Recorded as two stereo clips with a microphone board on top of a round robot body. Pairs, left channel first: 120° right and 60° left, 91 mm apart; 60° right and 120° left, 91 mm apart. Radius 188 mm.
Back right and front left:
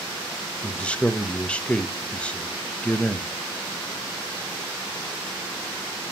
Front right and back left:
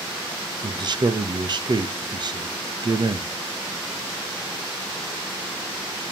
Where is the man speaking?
160° left, 1.0 m.